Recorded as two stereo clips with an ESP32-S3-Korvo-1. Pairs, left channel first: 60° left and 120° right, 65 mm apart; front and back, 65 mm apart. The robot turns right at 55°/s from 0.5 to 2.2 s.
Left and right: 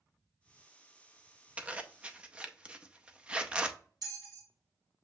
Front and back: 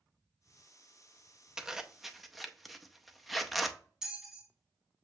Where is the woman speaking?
I don't hear a woman speaking.